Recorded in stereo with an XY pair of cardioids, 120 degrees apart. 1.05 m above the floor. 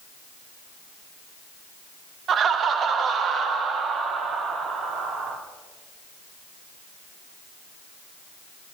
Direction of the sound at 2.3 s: 50° right.